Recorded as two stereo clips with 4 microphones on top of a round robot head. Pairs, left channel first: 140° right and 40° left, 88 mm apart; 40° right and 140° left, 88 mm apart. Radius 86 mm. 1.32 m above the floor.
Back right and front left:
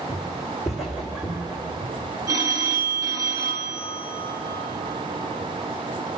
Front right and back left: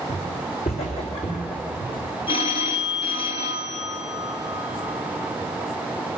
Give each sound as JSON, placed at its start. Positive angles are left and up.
{"t": 0.1, "sound": "footsteps", "azimuth_deg": -45, "distance_m": 3.0}
{"t": 2.3, "sound": "a phone ringing", "azimuth_deg": -15, "distance_m": 1.8}